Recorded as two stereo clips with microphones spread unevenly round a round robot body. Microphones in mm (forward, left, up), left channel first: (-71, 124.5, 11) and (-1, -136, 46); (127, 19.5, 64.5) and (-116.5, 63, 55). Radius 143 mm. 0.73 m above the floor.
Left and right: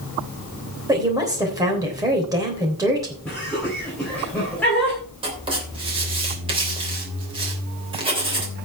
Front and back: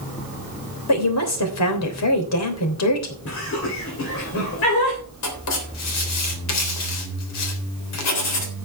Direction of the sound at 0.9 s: 5° left.